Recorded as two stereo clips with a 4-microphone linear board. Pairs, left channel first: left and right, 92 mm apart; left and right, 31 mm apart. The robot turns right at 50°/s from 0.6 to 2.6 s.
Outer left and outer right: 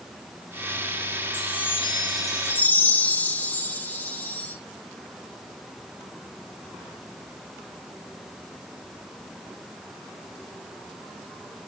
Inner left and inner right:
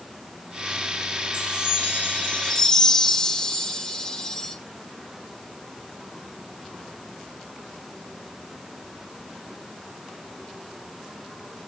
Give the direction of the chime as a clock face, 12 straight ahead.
9 o'clock.